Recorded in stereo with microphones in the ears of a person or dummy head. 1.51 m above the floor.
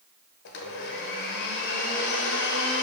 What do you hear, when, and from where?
0.5 s a blender: 60° left (ahead or behind), 0.7 m